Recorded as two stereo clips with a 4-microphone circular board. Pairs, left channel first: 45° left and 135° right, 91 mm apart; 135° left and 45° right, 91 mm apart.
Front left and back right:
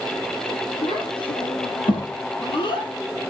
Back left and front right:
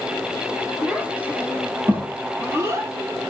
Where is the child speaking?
35° left, 6 m; by 2.9 s 15° left, 7 m.